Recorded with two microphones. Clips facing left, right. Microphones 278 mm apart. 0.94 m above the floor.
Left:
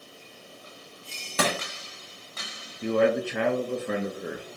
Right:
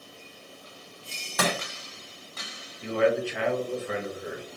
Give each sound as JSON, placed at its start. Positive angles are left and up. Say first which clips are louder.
{"t": 1.4, "sound": "crushing", "louder": "left 1 dB", "side_deg": 35, "distance_m": 1.6}
{"t": 2.8, "sound": "a man speaking", "louder": "left 1 dB", "side_deg": 55, "distance_m": 0.8}